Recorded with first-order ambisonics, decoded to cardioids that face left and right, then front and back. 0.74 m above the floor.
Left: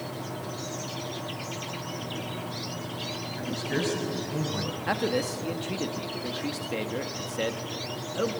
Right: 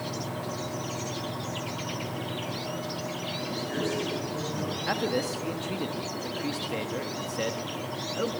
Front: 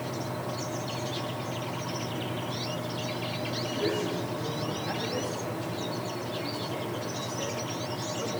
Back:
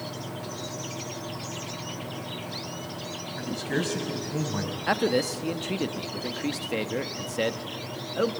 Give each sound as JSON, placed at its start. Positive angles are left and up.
{"t": 3.4, "sound": "a man speaking", "azimuth_deg": 160, "distance_m": 5.5}
{"t": 4.9, "sound": "a man speaking", "azimuth_deg": 170, "distance_m": 1.2}